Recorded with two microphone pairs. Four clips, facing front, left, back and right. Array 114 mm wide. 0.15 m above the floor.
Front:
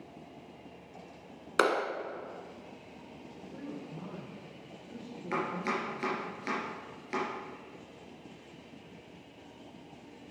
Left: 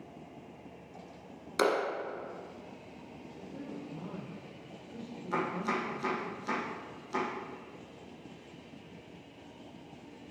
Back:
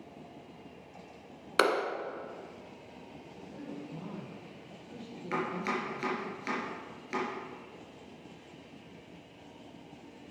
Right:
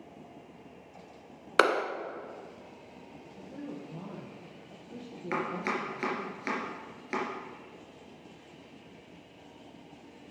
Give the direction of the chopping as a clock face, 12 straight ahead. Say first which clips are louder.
Even, even; 3 o'clock.